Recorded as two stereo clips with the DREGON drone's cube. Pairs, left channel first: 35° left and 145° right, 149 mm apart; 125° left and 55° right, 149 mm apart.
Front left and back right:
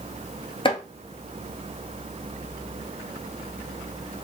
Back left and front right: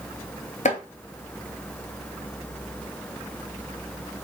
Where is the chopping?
90° left, 1.2 m.